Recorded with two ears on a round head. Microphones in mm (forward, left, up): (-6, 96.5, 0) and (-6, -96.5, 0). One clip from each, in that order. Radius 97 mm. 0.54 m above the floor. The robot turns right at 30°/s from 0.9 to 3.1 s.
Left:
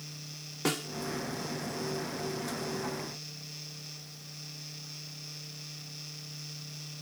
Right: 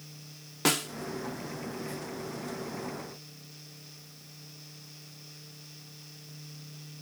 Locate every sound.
0.7 s a snare drum: 30° right (ahead or behind)